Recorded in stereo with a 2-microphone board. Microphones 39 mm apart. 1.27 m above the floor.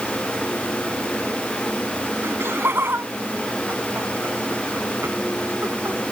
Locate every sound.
2.2 s laughter: 90° right; by 6.0 s 80° right